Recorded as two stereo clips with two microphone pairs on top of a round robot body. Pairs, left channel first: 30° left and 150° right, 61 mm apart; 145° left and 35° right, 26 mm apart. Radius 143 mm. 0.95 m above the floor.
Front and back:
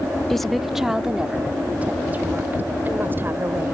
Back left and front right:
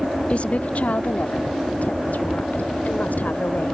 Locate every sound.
0.3 s a woman speaking: 110° left; by 3.8 s 155° left